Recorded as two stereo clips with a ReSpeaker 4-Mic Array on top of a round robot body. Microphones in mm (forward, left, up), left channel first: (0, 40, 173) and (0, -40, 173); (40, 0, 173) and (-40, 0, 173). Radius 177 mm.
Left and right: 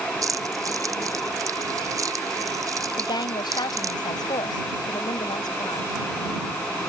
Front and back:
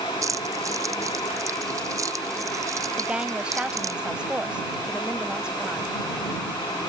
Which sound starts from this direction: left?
A woman speaking, at 3.0 s.